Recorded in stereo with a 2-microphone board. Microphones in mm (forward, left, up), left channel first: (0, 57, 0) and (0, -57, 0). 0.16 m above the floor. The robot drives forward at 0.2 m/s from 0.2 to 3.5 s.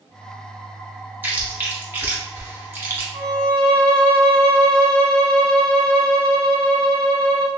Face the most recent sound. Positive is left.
turn(degrees=10)  # may be behind; listen again after turning